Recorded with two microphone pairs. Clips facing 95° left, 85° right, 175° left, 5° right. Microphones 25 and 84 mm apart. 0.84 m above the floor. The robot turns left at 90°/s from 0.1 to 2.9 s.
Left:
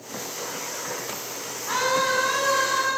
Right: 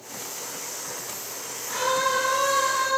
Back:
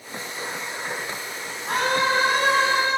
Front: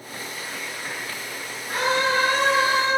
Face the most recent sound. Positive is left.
turn(degrees=45)